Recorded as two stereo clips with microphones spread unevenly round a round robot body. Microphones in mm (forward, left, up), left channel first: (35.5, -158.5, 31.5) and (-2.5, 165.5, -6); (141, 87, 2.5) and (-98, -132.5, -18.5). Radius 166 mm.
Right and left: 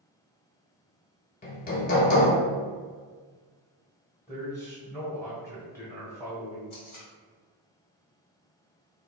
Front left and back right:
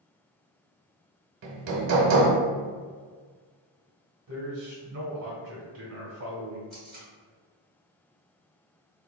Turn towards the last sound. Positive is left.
turn(degrees=-55)